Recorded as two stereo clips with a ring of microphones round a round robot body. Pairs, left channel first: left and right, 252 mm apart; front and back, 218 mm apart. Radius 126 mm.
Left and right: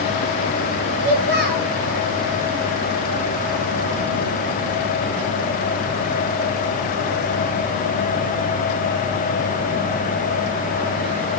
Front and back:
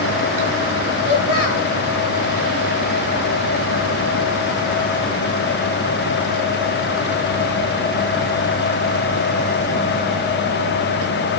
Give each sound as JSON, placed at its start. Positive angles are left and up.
{"t": 1.0, "sound": "a child speaking", "azimuth_deg": -35, "distance_m": 5.0}